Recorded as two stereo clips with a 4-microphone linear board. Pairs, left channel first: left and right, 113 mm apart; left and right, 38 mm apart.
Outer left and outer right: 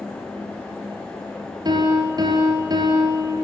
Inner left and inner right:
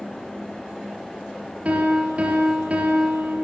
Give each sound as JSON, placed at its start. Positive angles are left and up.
{"t": 1.6, "sound": "a piano", "side_deg": -40, "distance_m": 3.5}